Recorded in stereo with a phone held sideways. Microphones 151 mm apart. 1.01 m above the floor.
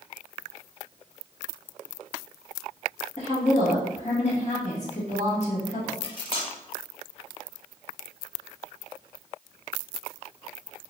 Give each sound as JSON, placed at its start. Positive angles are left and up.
{"t": 3.2, "sound": "a woman speaking", "side_deg": 45, "distance_m": 1.7}
{"t": 6.0, "sound": "cutlery clinking", "side_deg": 35, "distance_m": 1.0}